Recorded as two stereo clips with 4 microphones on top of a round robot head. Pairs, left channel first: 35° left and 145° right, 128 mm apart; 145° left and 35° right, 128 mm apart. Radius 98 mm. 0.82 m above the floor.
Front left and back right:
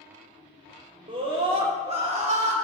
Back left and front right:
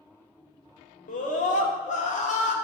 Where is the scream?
165° left, 3.5 m; by 2.5 s straight behind, 3 m.